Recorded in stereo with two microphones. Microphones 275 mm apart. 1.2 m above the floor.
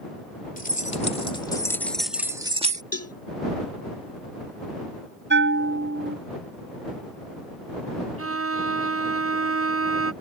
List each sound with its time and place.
0.6 s keys jangling: 30° left (ahead or behind); by 2.8 s 25° right (ahead or behind)
2.9 s a cowbell: 60° left (ahead or behind)
5.3 s a bell: 40° right (ahead or behind)
8.2 s a violin: 55° right (ahead or behind)